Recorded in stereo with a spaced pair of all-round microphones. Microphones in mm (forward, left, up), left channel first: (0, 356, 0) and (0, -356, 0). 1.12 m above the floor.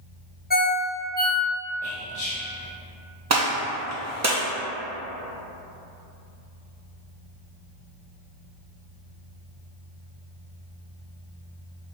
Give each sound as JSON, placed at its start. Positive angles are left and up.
{"t": 0.5, "sound": "a ringtone", "side_deg": 15, "distance_m": 0.6}
{"t": 1.8, "sound": "whispering", "side_deg": 55, "distance_m": 1.1}
{"t": 3.3, "sound": "a gunshot", "side_deg": -25, "distance_m": 0.7}